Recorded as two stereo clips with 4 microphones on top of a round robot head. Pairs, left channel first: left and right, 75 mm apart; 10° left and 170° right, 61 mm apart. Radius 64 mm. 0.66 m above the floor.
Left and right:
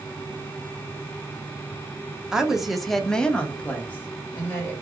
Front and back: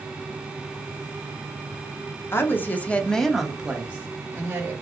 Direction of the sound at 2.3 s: 10° right.